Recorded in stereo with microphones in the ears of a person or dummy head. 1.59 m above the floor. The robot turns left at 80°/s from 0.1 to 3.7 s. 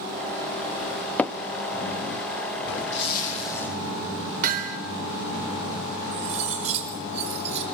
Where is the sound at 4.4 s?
40° right (ahead or behind), 4 m.